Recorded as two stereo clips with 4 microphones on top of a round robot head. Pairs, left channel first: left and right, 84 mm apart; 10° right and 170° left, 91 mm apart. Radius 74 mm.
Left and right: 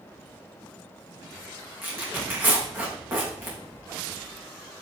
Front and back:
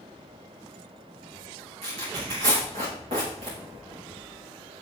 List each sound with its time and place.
1.8 s tearing paper: 155° right, 8 m